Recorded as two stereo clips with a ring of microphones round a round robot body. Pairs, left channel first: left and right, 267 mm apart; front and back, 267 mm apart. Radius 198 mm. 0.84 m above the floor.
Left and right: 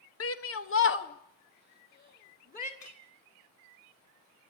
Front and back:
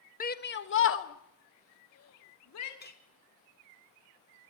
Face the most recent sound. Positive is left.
turn(degrees=55)